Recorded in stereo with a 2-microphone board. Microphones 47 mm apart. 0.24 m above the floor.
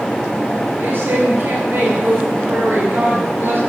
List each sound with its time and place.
0.8 s a woman speaking: 55° right (ahead or behind), 4 m